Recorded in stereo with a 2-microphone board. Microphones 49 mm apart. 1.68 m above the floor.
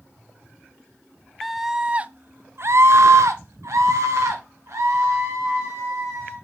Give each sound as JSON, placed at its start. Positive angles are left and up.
{"t": 1.4, "sound": "a scream", "side_deg": 0, "distance_m": 0.8}